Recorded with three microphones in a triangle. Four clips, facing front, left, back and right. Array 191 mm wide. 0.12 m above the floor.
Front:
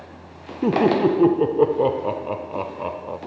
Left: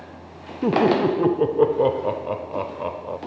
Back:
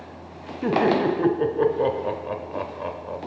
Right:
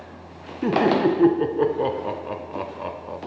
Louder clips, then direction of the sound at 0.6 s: Left 1 dB, front 3 dB; 40° left.